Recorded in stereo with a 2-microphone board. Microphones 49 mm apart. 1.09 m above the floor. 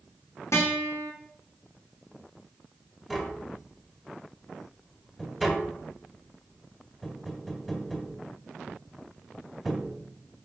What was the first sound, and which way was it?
A guitar, 80° left.